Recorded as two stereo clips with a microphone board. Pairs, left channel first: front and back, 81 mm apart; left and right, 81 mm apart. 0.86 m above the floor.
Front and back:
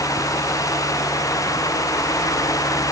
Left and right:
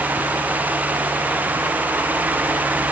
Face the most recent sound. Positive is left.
No sound to turn to.